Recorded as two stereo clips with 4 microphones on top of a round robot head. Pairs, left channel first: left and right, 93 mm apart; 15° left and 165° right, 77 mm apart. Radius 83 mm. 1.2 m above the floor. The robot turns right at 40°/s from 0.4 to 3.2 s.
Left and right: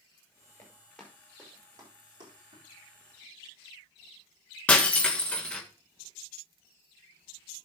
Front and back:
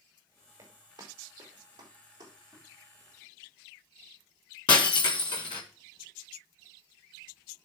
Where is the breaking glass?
20° left, 1.5 m.